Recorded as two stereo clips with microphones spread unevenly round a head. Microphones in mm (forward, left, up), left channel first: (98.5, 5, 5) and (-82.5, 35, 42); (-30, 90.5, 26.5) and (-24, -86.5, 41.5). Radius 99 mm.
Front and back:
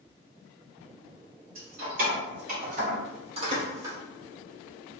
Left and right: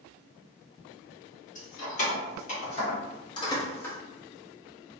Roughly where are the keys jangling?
Behind left.